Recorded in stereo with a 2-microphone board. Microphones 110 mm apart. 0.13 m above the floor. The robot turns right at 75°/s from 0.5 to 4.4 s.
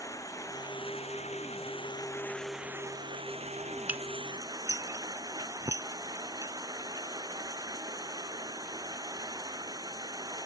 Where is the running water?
30° left; by 10.5 s 35° right.